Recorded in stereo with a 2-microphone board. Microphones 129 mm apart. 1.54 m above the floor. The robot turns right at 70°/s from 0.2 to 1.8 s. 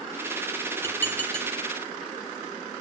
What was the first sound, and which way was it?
Dishes clattering, 15° left (ahead or behind).